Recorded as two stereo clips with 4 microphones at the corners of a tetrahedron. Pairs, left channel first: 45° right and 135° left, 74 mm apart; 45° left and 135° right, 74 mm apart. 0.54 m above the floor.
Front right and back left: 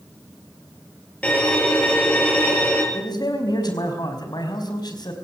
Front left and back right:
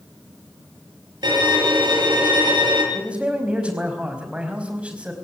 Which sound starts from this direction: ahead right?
A man speaking, at 2.9 s.